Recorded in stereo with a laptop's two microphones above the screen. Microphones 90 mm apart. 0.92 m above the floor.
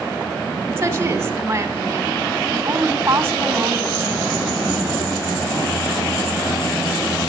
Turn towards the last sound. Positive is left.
turn(degrees=-30)  # may be behind; listen again after turning